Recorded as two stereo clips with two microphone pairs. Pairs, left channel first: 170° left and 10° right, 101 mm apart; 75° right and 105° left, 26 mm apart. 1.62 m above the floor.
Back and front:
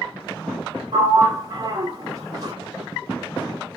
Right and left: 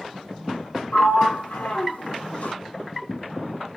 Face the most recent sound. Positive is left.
turn(degrees=-60)